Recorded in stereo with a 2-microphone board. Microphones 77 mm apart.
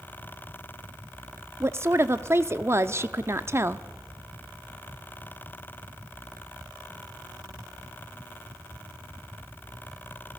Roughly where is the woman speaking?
Right.